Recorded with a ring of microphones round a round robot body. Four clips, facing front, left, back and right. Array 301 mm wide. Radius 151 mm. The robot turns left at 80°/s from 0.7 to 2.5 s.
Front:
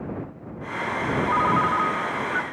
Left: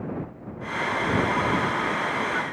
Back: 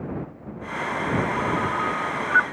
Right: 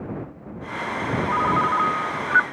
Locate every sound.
1.3 s a ringtone: 35° right; by 2.4 s 125° right